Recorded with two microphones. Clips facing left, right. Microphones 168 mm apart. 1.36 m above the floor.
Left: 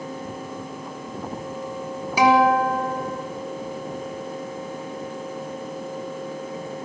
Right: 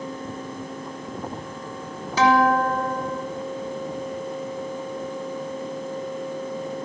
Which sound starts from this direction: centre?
A guitar, at 2.2 s.